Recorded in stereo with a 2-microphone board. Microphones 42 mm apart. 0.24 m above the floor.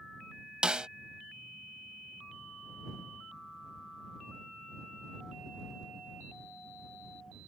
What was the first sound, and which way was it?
A snare drum, 20° right (ahead or behind).